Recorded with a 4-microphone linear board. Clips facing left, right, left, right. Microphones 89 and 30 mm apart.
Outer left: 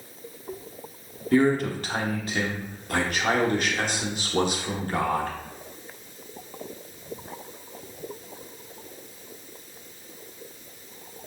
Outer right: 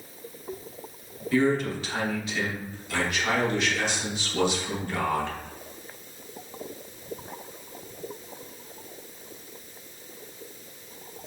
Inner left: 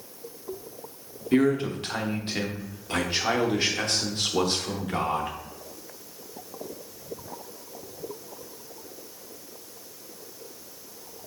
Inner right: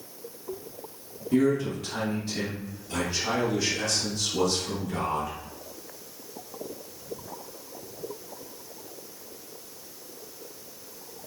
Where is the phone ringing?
No phone ringing in this recording.